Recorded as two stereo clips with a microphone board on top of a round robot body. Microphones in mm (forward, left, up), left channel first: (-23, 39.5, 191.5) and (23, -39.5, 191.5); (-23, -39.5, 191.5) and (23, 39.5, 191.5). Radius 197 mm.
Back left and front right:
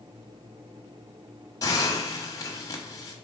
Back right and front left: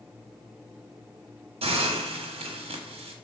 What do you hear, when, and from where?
1.6 s a hiss: 70° left, 1.0 m